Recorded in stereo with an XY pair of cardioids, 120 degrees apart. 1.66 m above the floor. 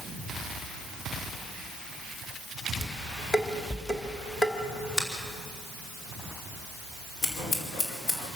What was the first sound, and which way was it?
Dishes clattering, 25° left.